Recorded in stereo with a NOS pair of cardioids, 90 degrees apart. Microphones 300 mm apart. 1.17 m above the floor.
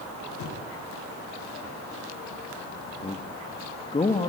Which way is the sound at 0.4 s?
70° left.